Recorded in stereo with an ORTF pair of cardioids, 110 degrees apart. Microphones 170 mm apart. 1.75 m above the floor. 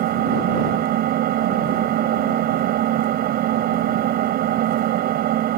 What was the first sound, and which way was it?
An engine running, 70° right.